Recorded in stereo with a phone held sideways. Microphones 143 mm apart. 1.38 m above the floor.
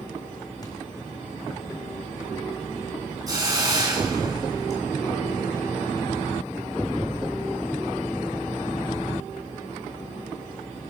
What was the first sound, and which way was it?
A thud, 25° left (ahead or behind).